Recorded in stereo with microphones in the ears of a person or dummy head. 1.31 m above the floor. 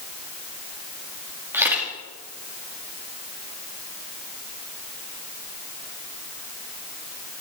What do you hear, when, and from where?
1.5 s a camera shutter: 20° right (ahead or behind), 2.5 m